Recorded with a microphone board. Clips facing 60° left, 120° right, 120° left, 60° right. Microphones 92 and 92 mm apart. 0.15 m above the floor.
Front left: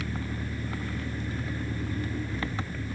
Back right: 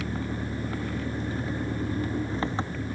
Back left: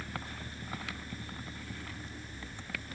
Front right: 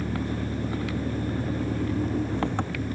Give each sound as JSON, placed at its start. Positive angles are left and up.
{"t": 0.0, "sound": "an engine running", "azimuth_deg": -60}